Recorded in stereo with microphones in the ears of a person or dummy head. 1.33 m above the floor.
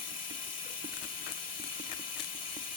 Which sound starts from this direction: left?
Running water, at 0.0 s.